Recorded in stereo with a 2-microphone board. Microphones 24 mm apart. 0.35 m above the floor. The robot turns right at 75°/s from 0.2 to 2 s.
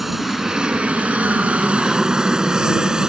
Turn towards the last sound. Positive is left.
turn(degrees=-30)  # may be behind; listen again after turning